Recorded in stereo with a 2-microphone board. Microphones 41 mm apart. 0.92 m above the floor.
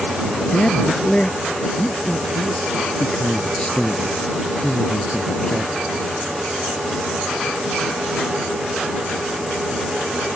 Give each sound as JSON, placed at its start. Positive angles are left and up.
{"t": 0.5, "sound": "a man speaking", "side_deg": 25}